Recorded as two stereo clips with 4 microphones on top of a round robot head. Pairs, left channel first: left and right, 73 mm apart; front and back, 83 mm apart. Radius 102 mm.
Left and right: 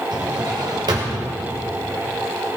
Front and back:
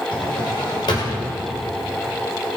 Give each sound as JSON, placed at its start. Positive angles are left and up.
{"t": 0.1, "sound": "a drawer", "azimuth_deg": -45, "distance_m": 2.0}